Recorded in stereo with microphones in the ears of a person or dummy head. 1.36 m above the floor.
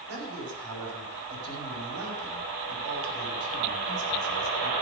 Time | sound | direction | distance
0.1 | a man speaking | 75° right (ahead or behind) | 7 m